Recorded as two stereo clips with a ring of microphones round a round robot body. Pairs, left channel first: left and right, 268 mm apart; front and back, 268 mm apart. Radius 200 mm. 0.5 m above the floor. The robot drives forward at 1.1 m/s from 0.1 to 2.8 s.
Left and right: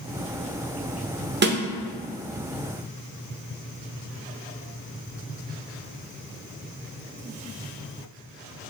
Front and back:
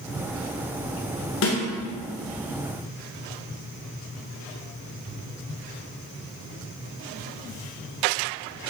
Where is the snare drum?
40° right, 1.0 m; by 1.6 s 50° right, 0.9 m.